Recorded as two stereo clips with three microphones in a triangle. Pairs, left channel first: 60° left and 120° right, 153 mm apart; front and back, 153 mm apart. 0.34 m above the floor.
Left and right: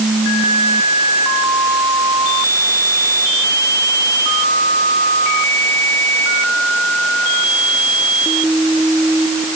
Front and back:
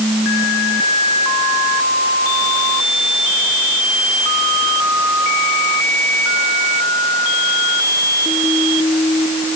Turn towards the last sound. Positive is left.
No sound to turn to.